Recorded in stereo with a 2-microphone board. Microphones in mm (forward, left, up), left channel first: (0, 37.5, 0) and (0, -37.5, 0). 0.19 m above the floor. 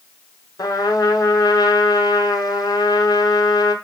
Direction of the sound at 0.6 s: 65° left (ahead or behind).